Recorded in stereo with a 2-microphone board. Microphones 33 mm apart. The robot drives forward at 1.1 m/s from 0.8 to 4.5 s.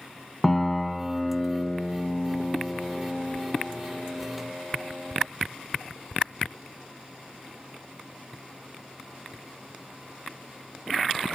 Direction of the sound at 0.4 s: 5° left (ahead or behind).